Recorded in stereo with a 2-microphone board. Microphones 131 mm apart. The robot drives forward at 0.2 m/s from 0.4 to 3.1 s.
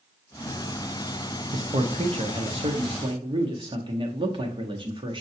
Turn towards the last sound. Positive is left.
turn(degrees=-40)  # may be behind; listen again after turning